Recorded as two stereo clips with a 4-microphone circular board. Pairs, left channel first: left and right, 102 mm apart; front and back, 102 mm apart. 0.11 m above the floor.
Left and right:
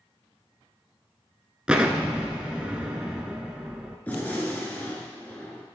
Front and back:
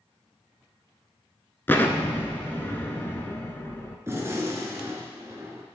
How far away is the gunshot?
About 1.3 m.